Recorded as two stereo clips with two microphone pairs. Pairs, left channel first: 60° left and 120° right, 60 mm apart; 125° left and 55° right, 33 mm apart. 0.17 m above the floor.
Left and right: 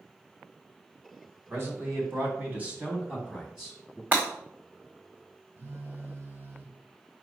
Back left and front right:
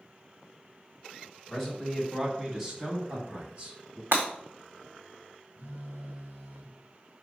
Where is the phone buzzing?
75° right, 1.4 m.